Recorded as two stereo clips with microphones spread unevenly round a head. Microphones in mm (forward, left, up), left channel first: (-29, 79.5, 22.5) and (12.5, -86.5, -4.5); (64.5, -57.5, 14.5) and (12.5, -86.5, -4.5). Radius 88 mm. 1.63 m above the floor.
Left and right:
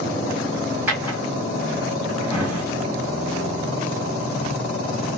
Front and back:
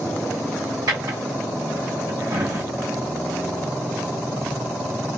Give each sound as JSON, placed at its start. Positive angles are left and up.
{"t": 0.9, "sound": "a drawer", "azimuth_deg": -160, "distance_m": 2.0}